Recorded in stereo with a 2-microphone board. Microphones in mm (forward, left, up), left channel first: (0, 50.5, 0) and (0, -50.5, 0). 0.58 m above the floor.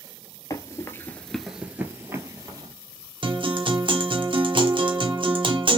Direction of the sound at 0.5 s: 35° left (ahead or behind).